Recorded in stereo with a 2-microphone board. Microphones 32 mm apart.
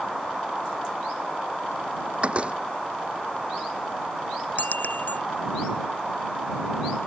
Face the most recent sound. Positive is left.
turn(degrees=55)  # may be behind; listen again after turning